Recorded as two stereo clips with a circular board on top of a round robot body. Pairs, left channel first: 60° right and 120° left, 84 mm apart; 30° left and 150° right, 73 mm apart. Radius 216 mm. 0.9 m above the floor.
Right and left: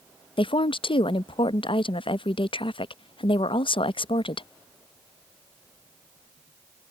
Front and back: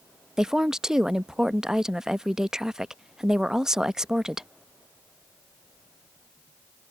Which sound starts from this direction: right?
A woman speaking, at 0.4 s.